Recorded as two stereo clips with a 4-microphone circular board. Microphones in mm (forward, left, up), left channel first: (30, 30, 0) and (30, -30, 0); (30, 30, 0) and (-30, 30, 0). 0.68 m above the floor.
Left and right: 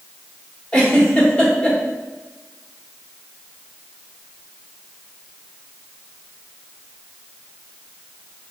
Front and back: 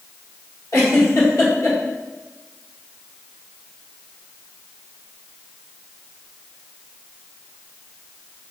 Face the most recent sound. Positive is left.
turn(degrees=20)